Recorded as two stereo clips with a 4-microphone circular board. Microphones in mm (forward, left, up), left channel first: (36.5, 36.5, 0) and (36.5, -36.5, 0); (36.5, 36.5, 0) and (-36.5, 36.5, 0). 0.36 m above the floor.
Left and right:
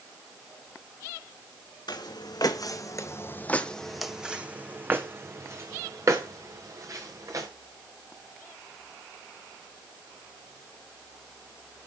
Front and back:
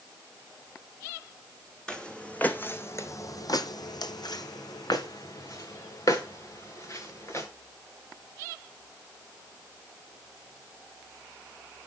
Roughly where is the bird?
I don't hear a bird.